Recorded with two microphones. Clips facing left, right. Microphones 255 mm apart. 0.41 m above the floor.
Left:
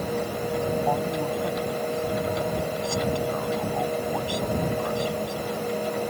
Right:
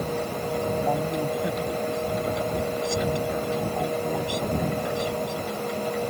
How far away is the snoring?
No snoring in this recording.